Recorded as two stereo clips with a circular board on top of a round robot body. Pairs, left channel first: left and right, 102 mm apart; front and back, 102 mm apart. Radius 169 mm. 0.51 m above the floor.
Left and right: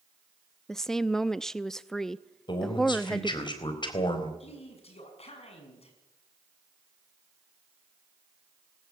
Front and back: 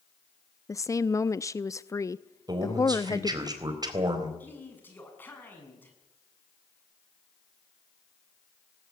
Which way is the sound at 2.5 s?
130° left.